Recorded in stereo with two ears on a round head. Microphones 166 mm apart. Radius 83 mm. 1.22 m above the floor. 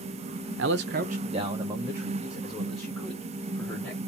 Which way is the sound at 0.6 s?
80° right.